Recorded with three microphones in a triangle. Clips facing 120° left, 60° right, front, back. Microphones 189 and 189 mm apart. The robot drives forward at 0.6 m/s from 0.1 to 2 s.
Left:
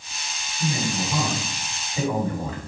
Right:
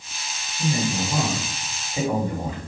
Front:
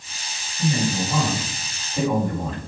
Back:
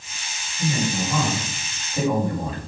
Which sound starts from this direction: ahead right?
A man speaking, at 0.6 s.